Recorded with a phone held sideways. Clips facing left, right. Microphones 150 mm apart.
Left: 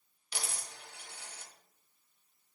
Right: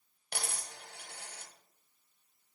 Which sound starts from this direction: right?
A dropped coin, at 0.3 s.